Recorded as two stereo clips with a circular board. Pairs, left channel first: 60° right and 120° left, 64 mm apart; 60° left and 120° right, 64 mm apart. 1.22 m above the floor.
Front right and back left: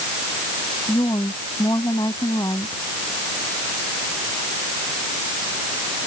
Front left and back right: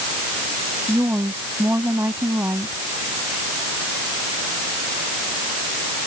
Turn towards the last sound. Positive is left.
turn(degrees=-75)